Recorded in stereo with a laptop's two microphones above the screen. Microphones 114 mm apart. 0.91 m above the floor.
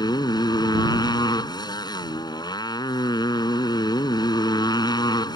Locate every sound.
0.0 s a motorcycle: 35° left (ahead or behind)